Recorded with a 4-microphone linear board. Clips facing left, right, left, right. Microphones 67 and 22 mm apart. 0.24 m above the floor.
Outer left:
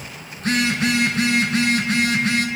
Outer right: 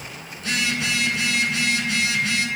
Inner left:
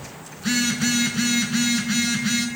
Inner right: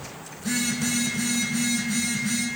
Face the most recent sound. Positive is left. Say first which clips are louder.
# outer left 5 dB, inner left 4 dB
turn(degrees=45)  # may be behind; listen again after turning